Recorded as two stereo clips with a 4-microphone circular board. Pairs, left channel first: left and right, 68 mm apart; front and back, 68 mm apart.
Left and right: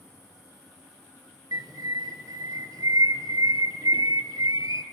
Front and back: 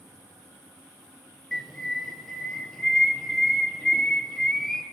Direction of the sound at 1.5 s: 85° right.